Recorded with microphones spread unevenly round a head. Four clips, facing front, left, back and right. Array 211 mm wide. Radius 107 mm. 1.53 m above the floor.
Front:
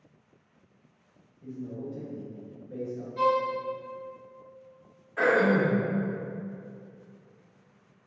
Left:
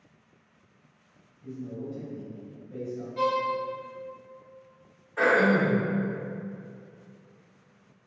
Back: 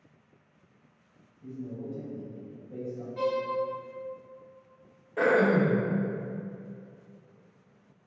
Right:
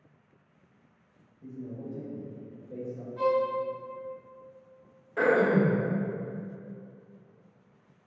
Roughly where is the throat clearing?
Behind right.